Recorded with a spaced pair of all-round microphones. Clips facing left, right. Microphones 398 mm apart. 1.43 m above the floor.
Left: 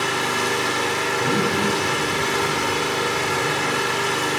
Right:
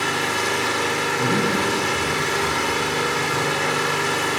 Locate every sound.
0.0 s an engine running: 40° right (ahead or behind), 3.5 m
1.2 s a man speaking: 55° right (ahead or behind), 4 m